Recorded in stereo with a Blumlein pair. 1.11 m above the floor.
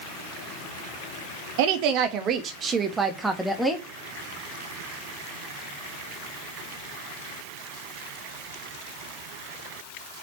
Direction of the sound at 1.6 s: 45° right.